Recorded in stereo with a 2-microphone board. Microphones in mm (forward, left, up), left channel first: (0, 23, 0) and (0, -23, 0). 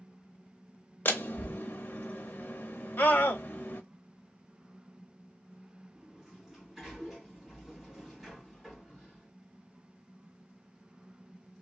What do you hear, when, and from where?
1.1 s a door slam: 50° left (ahead or behind), 0.7 m
3.0 s a scream: 55° left (ahead or behind), 1.0 m
6.0 s a sliding door: centre (ahead or behind), 2.5 m